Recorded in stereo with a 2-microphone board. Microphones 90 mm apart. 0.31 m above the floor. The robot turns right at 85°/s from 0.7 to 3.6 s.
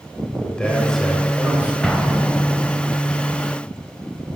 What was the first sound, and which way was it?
A man speaking, 10° left (ahead or behind).